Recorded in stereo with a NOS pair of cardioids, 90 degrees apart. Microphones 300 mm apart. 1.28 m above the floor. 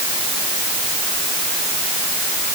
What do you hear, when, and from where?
Only background noise.